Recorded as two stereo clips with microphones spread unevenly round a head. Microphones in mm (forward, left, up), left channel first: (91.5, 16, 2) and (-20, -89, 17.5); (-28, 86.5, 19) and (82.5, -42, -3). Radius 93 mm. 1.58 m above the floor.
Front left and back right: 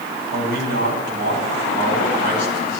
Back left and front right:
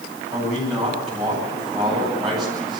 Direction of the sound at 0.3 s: 140° right.